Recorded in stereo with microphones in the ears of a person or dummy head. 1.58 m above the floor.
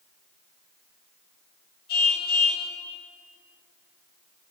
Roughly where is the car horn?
Left.